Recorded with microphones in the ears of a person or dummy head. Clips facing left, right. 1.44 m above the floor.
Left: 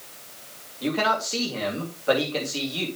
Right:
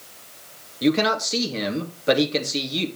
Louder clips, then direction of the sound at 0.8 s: Right 5 dB; 35° right (ahead or behind).